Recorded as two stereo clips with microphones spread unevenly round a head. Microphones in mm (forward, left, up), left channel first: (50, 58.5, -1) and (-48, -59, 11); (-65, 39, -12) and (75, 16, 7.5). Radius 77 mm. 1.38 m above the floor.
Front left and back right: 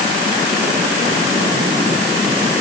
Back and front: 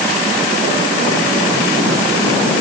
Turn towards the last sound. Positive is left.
No sound to turn to.